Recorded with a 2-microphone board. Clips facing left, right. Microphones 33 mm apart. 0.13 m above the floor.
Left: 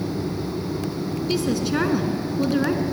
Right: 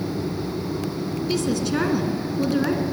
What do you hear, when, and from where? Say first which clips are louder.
1.3 s a woman speaking: left 1 dB; 15° left (ahead or behind), 1.8 m